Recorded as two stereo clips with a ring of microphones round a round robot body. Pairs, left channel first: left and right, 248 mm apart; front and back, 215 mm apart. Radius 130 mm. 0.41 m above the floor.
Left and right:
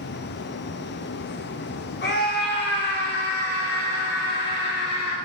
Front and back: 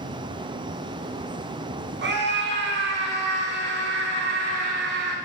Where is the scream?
140° left, 4.5 m.